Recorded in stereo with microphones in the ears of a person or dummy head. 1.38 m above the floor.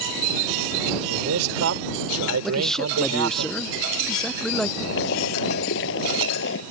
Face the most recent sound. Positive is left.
turn(degrees=70)  # may be behind; listen again after turning